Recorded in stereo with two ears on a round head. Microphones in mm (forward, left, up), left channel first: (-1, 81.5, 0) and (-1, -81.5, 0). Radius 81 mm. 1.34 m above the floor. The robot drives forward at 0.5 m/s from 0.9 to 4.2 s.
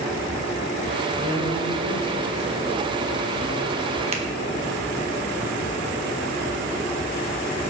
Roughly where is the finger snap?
Right.